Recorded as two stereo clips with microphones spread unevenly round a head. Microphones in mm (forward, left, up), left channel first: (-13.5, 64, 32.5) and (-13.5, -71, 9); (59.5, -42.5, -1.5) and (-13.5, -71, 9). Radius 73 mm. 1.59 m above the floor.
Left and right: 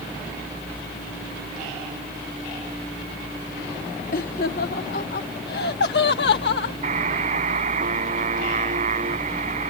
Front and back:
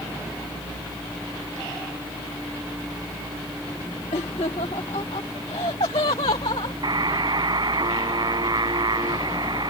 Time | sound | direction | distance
4.1 | laughter | 55° left | ?
6.8 | a buzzer | 130° right | ?